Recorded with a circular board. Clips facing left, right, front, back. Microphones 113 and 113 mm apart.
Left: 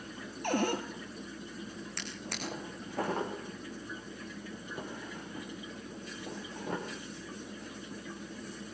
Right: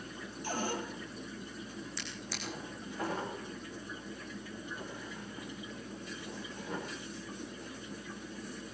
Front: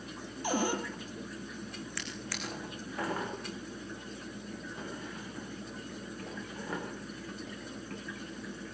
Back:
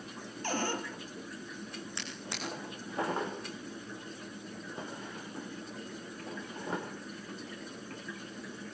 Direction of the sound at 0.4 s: 75° left.